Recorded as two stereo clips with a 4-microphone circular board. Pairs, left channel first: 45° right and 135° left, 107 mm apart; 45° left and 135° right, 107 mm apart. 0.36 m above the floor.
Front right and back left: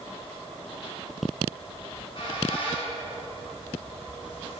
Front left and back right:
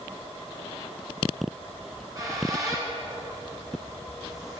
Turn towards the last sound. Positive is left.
turn(degrees=-80)